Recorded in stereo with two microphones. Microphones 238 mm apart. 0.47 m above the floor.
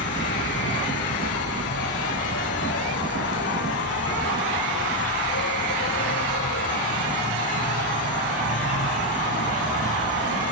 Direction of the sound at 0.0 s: 90° left.